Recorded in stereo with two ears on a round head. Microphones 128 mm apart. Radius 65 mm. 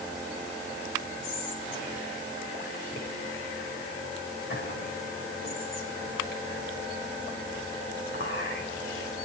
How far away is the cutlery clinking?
No cutlery clinking in this recording.